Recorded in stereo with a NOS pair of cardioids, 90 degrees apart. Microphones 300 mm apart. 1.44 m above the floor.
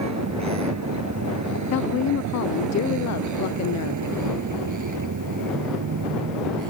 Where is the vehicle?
60° right; by 6.7 s 80° right.